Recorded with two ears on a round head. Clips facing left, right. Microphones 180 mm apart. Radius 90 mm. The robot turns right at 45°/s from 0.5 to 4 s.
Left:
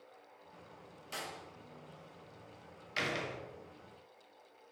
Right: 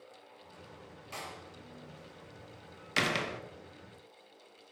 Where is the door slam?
10° left (ahead or behind), 0.9 m; by 3.4 s 70° right (ahead or behind), 0.9 m.